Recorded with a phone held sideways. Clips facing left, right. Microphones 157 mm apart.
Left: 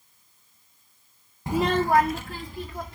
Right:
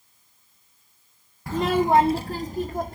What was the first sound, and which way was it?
A child speaking, 20° left (ahead or behind).